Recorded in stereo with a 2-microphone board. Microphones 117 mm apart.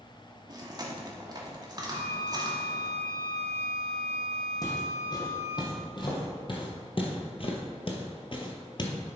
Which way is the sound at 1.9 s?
60° right (ahead or behind).